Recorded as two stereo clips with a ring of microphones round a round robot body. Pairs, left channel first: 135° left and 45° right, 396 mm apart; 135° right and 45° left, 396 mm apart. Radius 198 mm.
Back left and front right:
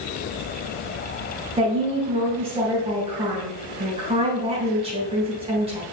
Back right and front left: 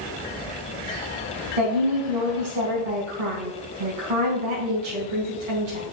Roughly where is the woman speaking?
Ahead left.